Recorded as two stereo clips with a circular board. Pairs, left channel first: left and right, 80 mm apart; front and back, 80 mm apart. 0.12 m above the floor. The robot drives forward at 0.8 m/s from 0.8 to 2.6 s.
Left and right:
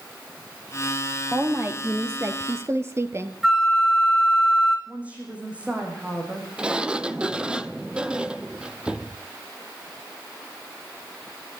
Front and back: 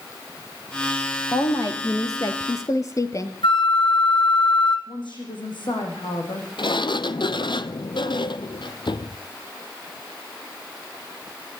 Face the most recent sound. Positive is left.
turn(degrees=-10)